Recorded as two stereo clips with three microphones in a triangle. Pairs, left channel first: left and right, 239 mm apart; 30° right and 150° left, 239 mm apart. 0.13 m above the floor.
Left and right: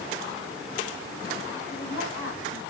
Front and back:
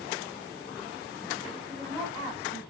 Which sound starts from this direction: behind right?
A woman speaking, at 1.7 s.